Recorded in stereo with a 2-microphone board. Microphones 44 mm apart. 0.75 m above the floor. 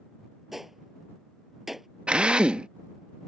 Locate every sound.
0.5 s a gunshot: 5° right (ahead or behind)
2.1 s a drill: 25° right (ahead or behind)